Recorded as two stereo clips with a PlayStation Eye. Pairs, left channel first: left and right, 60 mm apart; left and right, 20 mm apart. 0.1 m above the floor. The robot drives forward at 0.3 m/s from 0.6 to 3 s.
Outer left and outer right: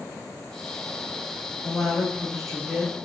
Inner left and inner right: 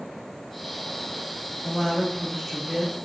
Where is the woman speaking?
5° left (ahead or behind), 1.7 m; by 3.0 s centre (ahead or behind), 2 m.